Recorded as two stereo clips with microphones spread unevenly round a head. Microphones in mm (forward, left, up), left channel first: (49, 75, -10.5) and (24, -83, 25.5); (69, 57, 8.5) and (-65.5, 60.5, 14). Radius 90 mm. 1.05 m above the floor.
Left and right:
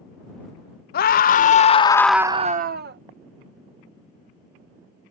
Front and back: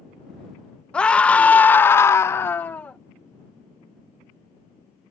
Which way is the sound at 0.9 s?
80° left.